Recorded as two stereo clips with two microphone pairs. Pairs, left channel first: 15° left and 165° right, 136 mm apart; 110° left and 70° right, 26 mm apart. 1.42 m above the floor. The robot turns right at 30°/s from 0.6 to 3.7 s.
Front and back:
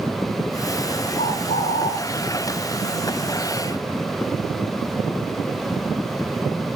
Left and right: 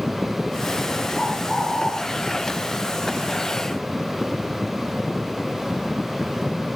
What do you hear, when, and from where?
1.2 s a bird: 30° left, 7.5 m; by 1.9 s 55° left, 7.5 m